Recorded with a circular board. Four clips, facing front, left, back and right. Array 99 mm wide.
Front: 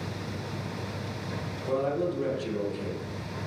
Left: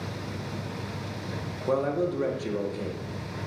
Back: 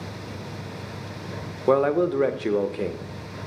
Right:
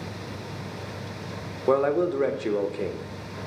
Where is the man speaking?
160° right, 0.9 m.